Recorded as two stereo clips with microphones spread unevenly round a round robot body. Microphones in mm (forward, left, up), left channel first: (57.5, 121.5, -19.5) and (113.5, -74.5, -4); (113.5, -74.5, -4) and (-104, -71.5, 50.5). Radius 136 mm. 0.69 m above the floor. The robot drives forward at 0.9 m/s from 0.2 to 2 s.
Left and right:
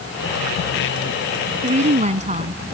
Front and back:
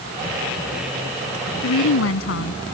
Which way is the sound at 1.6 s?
20° right.